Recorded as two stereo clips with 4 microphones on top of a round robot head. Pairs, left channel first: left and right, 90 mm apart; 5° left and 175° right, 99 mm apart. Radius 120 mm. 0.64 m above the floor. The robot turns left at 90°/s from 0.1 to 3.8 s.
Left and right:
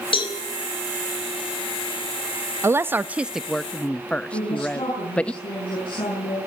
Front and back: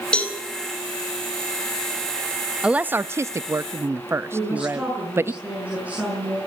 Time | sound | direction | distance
0.1 | a cowbell | 85° left | 4.5 m
2.6 | a woman speaking | 105° right | 0.6 m
4.3 | a woman speaking | 110° left | 8 m